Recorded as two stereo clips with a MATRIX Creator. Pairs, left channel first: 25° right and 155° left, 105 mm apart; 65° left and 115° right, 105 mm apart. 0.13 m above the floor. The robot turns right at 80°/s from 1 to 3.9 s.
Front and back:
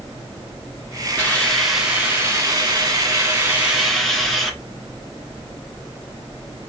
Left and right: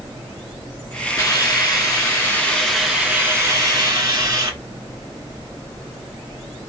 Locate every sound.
1.2 s a hiss: 30° left, 1.6 m; by 4.5 s 110° right, 1.6 m